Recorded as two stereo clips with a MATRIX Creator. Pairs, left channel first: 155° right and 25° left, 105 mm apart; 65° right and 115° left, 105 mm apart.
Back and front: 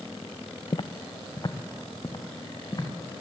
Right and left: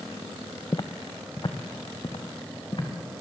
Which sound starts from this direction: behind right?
Footsteps, at 0.7 s.